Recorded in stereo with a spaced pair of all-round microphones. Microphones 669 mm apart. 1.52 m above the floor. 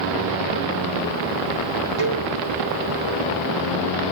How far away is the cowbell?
About 3.5 m.